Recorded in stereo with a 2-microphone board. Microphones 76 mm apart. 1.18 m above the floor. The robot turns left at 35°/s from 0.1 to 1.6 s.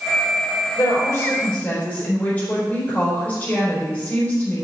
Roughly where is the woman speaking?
Left.